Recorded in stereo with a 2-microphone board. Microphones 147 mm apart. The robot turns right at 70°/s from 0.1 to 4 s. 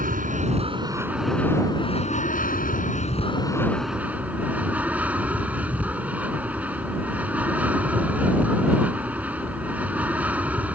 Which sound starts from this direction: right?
An aircraft, at 0.0 s.